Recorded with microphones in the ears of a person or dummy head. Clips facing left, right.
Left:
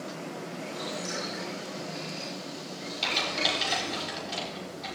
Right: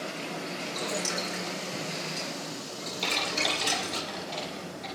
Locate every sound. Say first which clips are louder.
0.6 s boiling: right 3 dB; 70° right (ahead or behind), 8.5 m
3.0 s typing on a keyboard: even; 5° left (ahead or behind), 6 m